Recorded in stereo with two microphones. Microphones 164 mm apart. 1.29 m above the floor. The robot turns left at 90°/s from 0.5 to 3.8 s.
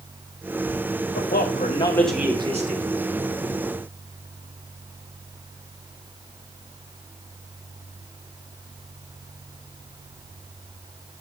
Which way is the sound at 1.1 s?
85° left.